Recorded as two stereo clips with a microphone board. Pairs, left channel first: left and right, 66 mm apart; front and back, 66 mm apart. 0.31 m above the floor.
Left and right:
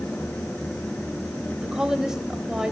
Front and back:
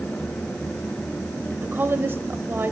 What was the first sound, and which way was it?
A woman speaking, 165° right.